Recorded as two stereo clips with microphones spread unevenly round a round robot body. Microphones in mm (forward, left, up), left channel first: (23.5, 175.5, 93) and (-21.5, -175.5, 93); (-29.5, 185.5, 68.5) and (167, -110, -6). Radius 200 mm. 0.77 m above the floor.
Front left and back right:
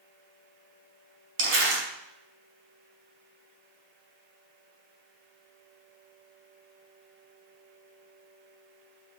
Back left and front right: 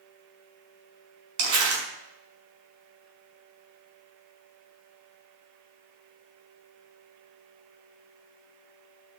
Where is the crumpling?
40° right, 5.5 m.